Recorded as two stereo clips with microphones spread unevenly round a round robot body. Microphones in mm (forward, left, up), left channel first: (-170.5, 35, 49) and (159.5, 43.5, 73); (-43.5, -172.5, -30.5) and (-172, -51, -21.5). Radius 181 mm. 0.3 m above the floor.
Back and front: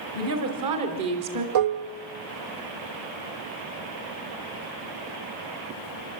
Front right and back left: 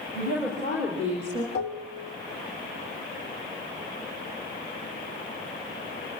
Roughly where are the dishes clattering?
Ahead.